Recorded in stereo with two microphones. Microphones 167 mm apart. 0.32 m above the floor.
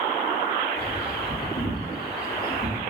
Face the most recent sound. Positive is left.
turn(degrees=65)  # may be behind; listen again after turning